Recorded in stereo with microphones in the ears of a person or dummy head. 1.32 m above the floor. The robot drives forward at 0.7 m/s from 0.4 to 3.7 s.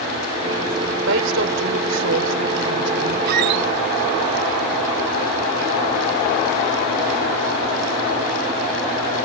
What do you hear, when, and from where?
1.1 s a woman speaking: 75° right (ahead or behind); by 3.2 s 60° right (ahead or behind)
3.3 s a squeak: 50° right (ahead or behind); by 3.6 s 65° right (ahead or behind)